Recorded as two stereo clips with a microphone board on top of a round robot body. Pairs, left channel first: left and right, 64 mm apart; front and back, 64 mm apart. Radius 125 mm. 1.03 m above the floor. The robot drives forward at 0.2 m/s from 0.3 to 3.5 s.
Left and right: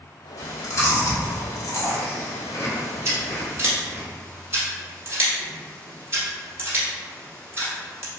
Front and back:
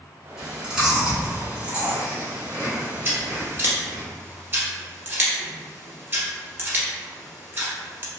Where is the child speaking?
No child speaking in this recording.